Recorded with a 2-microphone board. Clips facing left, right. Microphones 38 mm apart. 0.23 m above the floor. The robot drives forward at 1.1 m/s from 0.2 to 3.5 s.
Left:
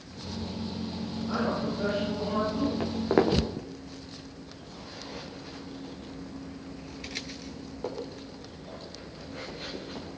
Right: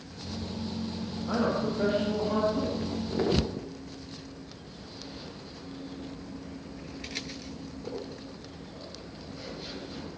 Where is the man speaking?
20° right (ahead or behind), 8.5 m; by 2.7 s 15° right (ahead or behind), 10 m.